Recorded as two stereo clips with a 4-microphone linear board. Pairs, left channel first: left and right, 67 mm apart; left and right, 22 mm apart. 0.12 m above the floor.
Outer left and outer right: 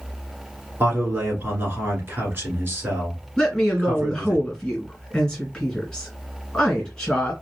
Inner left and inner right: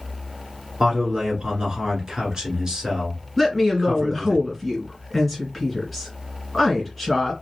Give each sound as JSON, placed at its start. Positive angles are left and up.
{"t": 0.8, "sound": "a man speaking", "side_deg": -35, "distance_m": 1.3}
{"t": 3.4, "sound": "a woman speaking", "side_deg": 10, "distance_m": 1.9}